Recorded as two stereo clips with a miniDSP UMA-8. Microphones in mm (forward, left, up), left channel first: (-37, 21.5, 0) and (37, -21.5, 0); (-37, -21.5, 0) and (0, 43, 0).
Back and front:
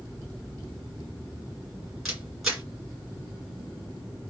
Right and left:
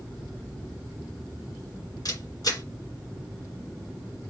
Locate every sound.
2.0 s a camera shutter: 115° right, 2 m